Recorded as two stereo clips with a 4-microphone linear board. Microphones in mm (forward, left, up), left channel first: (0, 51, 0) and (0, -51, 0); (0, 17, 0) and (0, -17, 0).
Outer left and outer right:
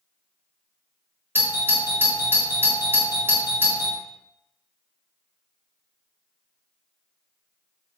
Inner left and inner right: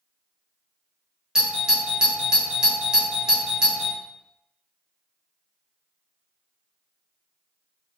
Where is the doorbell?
20° right (ahead or behind), 0.7 m.